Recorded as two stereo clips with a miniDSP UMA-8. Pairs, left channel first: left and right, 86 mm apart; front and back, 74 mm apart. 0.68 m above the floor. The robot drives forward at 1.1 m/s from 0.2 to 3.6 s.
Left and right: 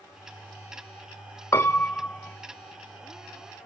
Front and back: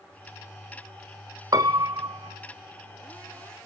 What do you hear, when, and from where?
1.5 s a piano: 145° left; by 2.4 s 165° left